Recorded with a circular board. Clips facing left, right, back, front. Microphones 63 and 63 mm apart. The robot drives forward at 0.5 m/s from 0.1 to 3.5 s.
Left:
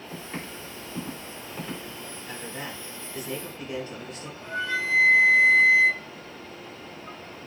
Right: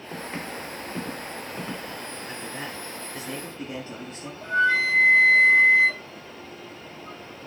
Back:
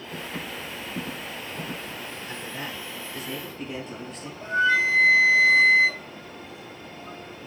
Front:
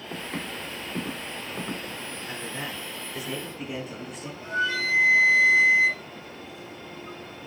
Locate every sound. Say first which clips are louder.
0.1 s footsteps: right 4 dB, front 1 dB; 30° right, 2 m; by 2.0 s 35° right, 3 m
2.3 s a man speaking: left 1 dB, front 1 dB; 50° right, 1.9 m; by 4.3 s 80° right, 1.8 m
4.4 s a flute: right 8 dB, back 5 dB; 120° right, 0.9 m